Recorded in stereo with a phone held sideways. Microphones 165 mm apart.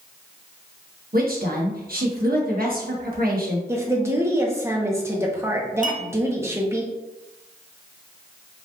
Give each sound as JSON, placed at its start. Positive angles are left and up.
{"t": 1.1, "sound": "a woman speaking", "side_deg": -60, "distance_m": 1.4}
{"t": 3.7, "sound": "a woman speaking", "side_deg": -15, "distance_m": 1.1}
{"t": 5.8, "sound": "a clink", "side_deg": -50, "distance_m": 0.7}